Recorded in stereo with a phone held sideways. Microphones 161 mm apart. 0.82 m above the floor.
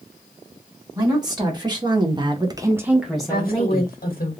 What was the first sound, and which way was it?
A woman speaking, 25° right (ahead or behind).